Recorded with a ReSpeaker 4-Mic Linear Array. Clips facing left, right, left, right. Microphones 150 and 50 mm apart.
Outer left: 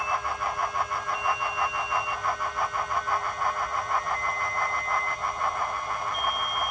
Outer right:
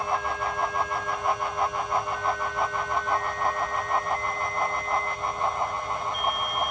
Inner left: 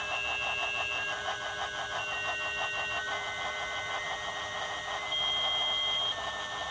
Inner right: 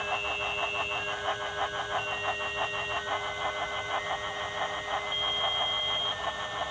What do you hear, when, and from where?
Only background noise.